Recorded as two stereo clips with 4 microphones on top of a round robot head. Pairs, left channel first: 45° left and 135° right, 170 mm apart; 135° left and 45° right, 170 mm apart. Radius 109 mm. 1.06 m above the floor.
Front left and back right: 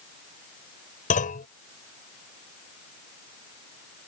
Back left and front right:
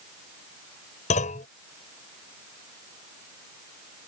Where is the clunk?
85° left.